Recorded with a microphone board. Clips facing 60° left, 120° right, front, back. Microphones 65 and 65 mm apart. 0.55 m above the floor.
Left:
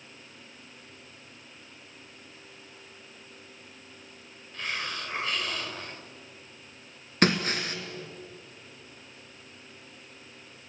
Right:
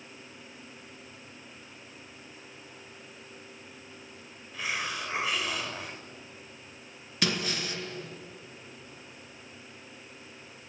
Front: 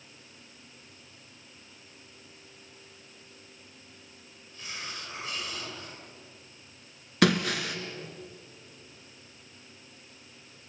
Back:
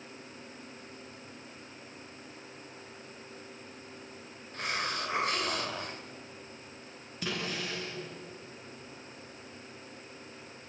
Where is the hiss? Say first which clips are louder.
Right 1 dB, back 7 dB; 155° left, 2 m.